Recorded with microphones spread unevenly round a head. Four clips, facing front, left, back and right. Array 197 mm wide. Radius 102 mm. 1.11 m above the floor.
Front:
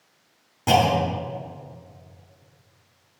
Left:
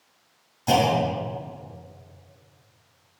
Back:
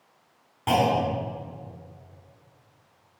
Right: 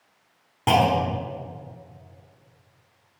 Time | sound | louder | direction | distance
0.7 | a clunk | right 1 dB, front 3 dB | 75° right | 4.5 m